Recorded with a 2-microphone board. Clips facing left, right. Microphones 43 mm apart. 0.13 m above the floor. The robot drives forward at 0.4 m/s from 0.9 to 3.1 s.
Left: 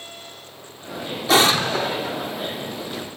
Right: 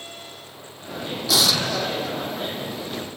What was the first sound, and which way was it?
An explosion, 35° left (ahead or behind).